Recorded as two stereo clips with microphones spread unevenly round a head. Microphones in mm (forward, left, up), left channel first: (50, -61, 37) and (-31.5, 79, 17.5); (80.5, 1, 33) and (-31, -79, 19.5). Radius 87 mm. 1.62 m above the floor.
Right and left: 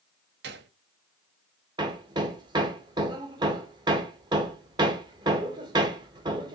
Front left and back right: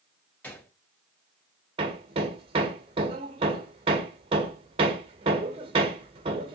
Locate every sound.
0.4 s a gunshot: 110° left, 0.6 m
1.8 s hammering: straight behind, 0.6 m